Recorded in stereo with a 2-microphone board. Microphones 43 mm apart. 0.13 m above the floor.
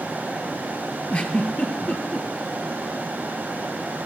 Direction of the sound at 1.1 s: 30° left (ahead or behind).